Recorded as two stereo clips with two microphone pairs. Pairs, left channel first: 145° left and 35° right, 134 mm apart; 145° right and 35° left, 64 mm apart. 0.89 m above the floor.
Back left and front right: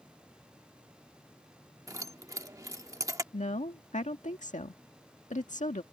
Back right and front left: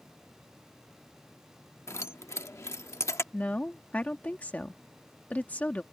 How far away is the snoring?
No snoring in this recording.